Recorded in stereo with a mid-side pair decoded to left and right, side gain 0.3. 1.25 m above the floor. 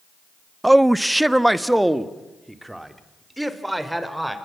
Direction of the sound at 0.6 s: 15° right.